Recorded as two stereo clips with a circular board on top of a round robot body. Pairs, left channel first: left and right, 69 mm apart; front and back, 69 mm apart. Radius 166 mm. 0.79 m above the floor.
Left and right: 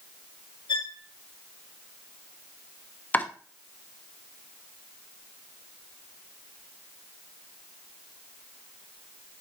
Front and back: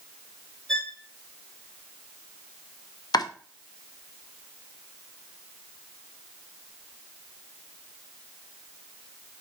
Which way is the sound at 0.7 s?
90° left.